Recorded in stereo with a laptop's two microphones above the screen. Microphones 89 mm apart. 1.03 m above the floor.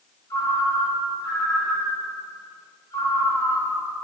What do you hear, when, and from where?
0.3 s a ringtone: 35° left (ahead or behind), 1.2 m